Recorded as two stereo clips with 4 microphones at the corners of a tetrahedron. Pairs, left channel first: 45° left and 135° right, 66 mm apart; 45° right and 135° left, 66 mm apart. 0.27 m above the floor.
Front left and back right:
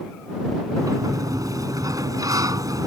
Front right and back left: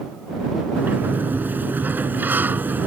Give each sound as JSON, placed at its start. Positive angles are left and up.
{"t": 0.8, "sound": "a sliding door", "azimuth_deg": -165}